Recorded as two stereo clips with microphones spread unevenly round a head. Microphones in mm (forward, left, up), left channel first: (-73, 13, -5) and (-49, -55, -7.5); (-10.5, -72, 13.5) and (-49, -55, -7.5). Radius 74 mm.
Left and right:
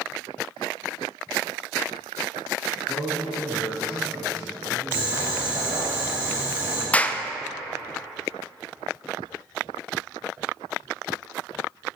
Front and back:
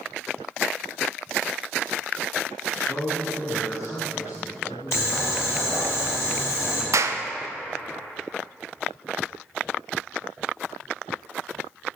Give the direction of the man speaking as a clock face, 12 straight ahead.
12 o'clock.